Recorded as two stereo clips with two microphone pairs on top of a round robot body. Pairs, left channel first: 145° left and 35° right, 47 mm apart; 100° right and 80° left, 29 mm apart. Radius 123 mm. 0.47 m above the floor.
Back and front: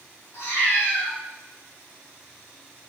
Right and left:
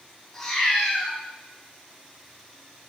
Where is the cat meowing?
Straight behind, 2 m.